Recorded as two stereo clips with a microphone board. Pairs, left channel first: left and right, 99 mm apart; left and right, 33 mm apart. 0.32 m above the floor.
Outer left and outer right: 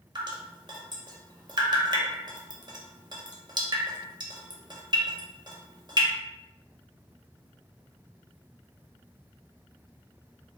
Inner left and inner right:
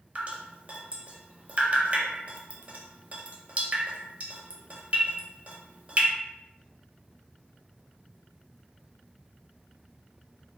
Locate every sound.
0.1 s dripping: 45° right (ahead or behind), 0.6 m